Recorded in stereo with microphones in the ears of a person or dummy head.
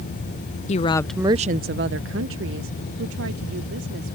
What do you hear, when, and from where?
0.7 s a woman speaking: 35° left (ahead or behind); by 4.2 s 75° right (ahead or behind)